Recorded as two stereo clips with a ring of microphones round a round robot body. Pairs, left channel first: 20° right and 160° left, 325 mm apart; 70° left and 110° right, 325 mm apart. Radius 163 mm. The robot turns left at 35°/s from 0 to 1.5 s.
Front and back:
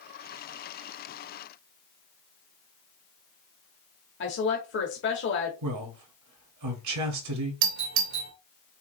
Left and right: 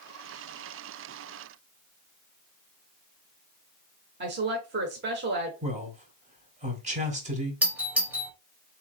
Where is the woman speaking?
65° right, 1.1 m.